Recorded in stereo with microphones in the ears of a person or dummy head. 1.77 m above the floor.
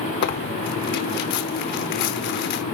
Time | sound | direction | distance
0.2 | tearing paper | 60° left (ahead or behind) | 0.8 m